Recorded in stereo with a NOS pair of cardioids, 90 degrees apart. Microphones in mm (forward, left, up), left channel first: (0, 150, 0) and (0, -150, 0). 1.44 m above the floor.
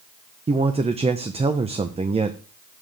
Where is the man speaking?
20° right, 0.9 m.